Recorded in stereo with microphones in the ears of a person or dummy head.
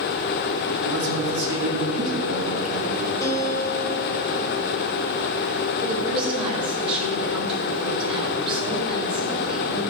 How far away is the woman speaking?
About 3.5 m.